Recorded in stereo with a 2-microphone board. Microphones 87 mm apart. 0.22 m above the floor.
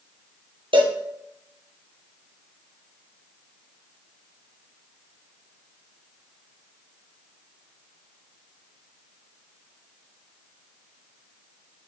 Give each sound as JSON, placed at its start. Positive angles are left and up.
{"t": 0.7, "sound": "a cowbell", "side_deg": -80, "distance_m": 1.3}